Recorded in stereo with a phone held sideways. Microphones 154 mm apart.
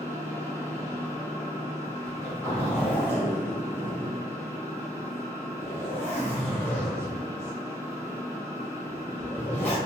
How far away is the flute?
No flute in this recording.